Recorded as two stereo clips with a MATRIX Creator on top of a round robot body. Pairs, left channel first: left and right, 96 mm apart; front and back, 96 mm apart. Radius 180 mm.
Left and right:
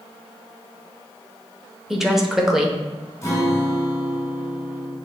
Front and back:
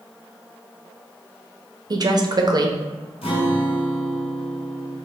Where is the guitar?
30° left, 1.6 m.